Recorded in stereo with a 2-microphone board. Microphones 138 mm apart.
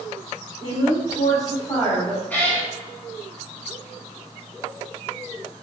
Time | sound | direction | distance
0.6 | a woman speaking | 20° left (ahead or behind) | 1.4 m
2.3 | a cat meowing | 15° left (ahead or behind) | 0.8 m